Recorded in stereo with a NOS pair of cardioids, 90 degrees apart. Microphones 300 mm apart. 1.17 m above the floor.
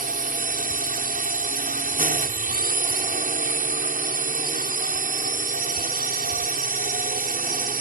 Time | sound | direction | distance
0.0 | a drone | 30° right | ?